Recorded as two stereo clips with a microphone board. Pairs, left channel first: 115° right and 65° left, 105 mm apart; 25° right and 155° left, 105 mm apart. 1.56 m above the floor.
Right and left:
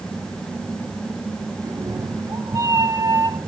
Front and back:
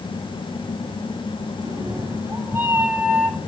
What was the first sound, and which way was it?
A cat meowing, 110° left.